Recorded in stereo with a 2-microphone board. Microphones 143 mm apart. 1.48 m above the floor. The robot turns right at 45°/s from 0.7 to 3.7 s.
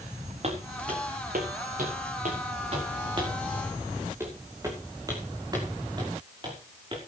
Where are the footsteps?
50° right (ahead or behind), 6.5 m; by 7.0 s 35° right (ahead or behind), 5.5 m.